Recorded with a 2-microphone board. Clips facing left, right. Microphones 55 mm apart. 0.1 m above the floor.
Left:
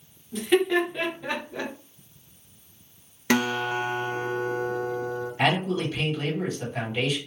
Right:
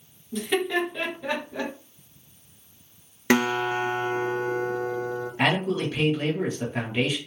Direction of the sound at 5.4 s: 25° right (ahead or behind).